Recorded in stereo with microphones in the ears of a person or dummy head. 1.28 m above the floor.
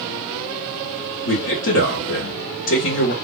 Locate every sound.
1.2 s a man speaking: 65° left (ahead or behind), 1.2 m